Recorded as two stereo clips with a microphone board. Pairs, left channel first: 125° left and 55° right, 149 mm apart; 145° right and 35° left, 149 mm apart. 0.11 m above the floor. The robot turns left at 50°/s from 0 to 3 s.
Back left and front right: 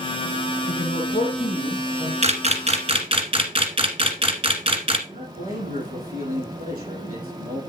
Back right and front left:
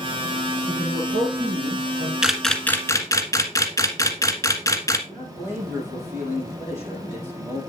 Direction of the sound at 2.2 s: 50° right.